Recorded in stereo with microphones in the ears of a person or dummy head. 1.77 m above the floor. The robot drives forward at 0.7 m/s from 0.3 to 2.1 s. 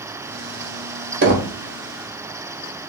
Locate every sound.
1.2 s knocking: 50° right (ahead or behind), 1.0 m; by 1.5 s 60° right (ahead or behind), 0.8 m